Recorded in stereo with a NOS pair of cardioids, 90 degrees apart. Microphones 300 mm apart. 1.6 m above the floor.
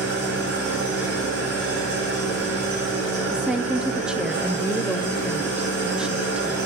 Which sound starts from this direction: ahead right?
An engine running, at 0.0 s.